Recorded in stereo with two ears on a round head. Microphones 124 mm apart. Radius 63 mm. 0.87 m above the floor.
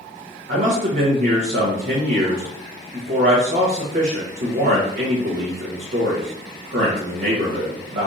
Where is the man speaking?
50° right (ahead or behind), 0.8 m.